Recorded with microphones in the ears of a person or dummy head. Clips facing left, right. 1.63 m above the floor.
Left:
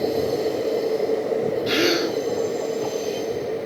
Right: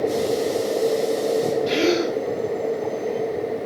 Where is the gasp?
5° left (ahead or behind), 7.5 m.